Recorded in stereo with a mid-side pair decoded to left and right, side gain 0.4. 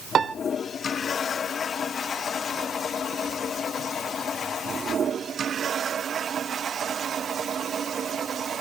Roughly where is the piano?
Ahead right.